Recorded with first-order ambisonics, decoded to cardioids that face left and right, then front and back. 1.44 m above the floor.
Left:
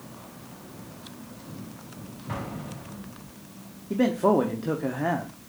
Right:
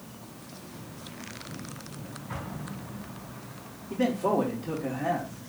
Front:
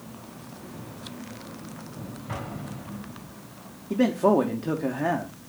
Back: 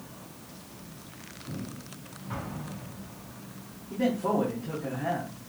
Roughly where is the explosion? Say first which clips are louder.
Left 4 dB, front 2 dB; ahead left.